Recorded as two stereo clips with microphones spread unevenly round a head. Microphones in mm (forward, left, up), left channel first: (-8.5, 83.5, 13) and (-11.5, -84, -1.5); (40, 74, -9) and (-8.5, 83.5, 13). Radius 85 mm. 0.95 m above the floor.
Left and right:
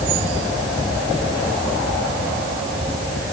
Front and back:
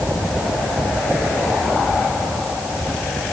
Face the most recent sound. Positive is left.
No sound to turn to.